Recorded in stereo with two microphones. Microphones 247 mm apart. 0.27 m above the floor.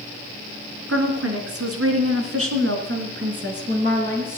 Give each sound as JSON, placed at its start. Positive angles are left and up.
{"t": 0.9, "sound": "a woman speaking", "side_deg": -65, "distance_m": 3.0}